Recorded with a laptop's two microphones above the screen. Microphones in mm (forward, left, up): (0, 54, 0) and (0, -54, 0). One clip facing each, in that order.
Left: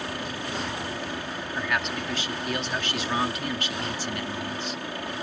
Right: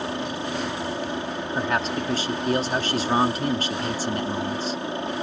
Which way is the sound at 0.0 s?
25° right (ahead or behind).